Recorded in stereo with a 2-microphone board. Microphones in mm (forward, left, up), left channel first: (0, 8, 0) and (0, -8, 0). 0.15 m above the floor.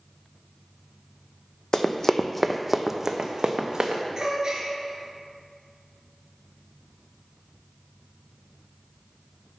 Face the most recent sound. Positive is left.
turn(degrees=-40)  # may be behind; listen again after turning